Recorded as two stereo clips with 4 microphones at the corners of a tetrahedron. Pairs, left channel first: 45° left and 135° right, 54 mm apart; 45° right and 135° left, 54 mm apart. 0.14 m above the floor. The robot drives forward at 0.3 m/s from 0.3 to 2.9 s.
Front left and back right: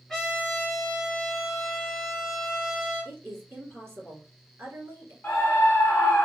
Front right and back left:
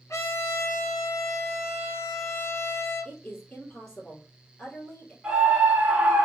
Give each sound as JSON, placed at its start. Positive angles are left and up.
{"t": 0.1, "sound": "a trumpet", "azimuth_deg": -40, "distance_m": 2.5}
{"t": 3.0, "sound": "a woman speaking", "azimuth_deg": -110, "distance_m": 2.0}
{"t": 5.2, "sound": "a scream", "azimuth_deg": 90, "distance_m": 1.7}